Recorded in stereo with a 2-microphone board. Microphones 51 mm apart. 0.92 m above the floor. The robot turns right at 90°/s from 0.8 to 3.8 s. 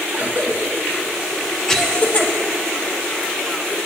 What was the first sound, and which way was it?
A cough, 45° right (ahead or behind).